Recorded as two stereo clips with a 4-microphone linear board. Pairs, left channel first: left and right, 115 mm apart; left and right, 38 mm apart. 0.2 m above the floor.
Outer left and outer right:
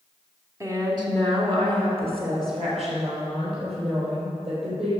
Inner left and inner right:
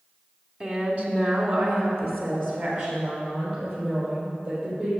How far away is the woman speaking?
About 1.4 m.